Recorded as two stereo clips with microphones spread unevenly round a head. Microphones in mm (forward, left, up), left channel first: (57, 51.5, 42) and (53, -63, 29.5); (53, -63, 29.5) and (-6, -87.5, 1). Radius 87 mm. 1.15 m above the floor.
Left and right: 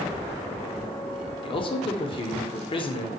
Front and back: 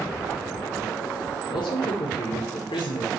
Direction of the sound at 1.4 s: 40° left.